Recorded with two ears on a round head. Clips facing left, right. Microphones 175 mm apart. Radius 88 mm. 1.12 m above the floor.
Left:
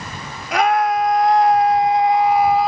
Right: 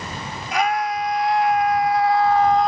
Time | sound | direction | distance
0.5 | a scream | 55° left (ahead or behind) | ?